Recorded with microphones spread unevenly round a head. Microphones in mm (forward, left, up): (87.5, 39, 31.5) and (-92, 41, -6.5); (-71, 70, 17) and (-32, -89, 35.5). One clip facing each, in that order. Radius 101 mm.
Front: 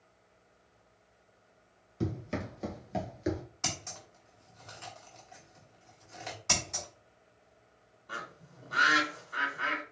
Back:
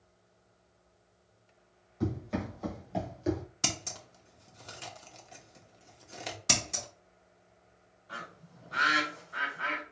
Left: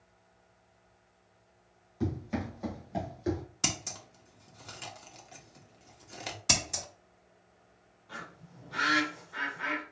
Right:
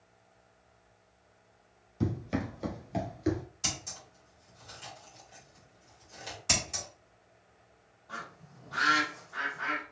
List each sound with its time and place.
2.0 s running footsteps: 30° right, 1.7 m; by 3.4 s 25° right, 1.2 m
3.6 s scissors: 125° left, 1.0 m
6.5 s scissors: 145° left, 1.5 m
8.1 s a bird: 20° left, 2.5 m